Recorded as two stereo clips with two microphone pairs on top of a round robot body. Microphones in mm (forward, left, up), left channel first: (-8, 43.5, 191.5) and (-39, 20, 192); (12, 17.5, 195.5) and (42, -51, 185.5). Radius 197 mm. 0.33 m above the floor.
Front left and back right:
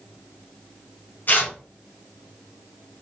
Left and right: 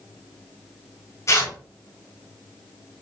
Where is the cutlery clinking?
I don't hear cutlery clinking.